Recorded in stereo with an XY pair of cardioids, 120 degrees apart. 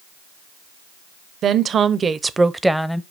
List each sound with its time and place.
1.4 s a woman speaking: 50° right, 0.9 m; by 3.0 s 10° left, 0.7 m